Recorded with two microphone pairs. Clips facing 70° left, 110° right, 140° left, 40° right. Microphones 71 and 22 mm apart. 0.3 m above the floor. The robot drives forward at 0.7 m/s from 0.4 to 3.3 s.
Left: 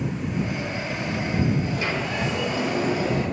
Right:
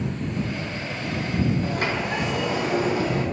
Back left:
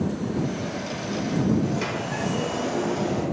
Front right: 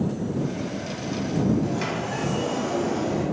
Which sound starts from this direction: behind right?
A sliding door, at 1.6 s.